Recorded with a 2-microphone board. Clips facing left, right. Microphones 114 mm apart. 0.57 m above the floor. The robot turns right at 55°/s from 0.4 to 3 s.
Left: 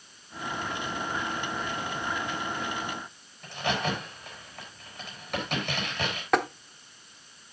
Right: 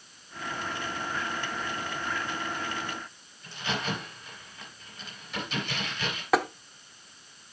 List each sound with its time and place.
3.4 s a crack: 60° left (ahead or behind), 4.5 m
6.3 s tapping: centre (ahead or behind), 0.7 m